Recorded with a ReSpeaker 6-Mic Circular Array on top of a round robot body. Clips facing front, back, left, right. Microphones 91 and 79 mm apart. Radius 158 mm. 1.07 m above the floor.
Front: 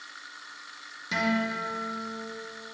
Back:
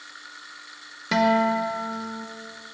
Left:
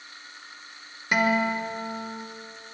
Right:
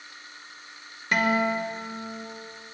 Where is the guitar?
170° left, 1.6 m.